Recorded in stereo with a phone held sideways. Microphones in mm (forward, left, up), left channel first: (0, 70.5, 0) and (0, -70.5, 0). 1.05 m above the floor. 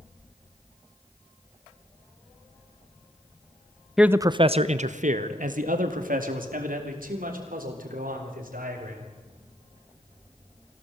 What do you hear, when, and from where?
4.0 s a man speaking: centre (ahead or behind), 0.6 m; by 9.1 s 85° right, 5.5 m